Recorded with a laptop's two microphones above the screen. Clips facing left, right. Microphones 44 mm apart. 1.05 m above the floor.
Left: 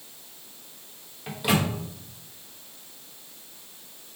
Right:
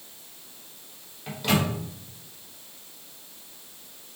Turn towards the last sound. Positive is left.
turn(degrees=10)  # may be behind; listen again after turning